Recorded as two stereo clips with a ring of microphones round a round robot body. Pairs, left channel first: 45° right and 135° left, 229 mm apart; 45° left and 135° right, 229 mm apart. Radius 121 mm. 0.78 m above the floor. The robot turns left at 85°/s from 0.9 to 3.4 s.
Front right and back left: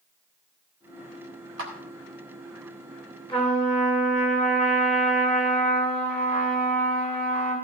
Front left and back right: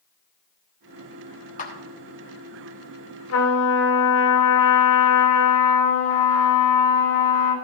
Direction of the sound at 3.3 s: 25° left.